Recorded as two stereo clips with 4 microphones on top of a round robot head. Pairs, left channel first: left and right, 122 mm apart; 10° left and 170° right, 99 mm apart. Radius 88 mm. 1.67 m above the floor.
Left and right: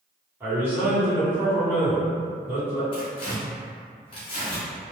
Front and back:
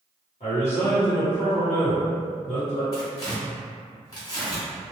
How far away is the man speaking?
About 1.7 m.